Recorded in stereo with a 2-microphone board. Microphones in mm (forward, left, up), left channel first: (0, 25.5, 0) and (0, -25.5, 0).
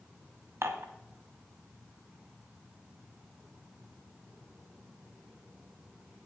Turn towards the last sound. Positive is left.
turn(degrees=-55)  # may be behind; listen again after turning